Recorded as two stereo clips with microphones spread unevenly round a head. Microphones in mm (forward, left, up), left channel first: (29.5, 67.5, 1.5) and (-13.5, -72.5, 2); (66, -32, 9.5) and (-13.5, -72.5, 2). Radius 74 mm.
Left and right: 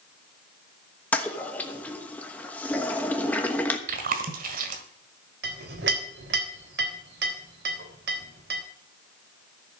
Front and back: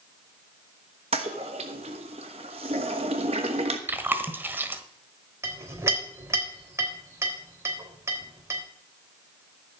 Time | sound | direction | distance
1.1 | a toilet flushing | 155° left | 1.1 m
3.9 | chewing | 85° right | 1.7 m
5.4 | a clink | 95° right | 3.5 m